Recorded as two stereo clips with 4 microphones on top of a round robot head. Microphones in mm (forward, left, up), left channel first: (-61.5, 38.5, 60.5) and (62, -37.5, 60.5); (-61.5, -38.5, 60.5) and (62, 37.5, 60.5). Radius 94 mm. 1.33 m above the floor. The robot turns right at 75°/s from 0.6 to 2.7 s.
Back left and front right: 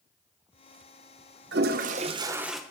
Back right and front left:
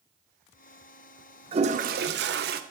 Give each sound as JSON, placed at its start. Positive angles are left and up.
{"t": 1.5, "sound": "a toilet flushing", "azimuth_deg": -25, "distance_m": 0.5}